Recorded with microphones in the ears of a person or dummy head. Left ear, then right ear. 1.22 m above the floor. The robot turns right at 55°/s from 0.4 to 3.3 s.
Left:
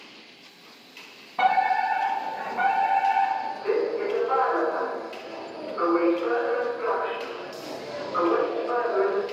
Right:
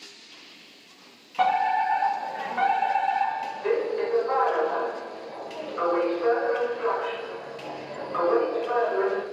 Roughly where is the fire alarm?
Behind.